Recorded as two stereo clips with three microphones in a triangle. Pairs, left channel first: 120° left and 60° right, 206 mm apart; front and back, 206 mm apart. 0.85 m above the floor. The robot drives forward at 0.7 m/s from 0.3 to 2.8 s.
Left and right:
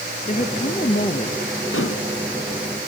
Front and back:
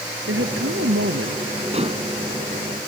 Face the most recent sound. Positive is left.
turn(degrees=125)